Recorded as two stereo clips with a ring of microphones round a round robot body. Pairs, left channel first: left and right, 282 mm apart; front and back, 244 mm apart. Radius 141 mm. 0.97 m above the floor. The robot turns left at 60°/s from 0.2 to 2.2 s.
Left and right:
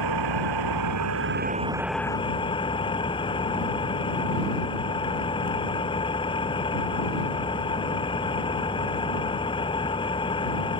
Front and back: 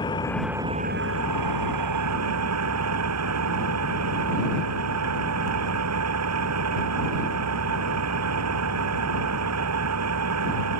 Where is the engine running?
75° right; by 10.8 s 165° left.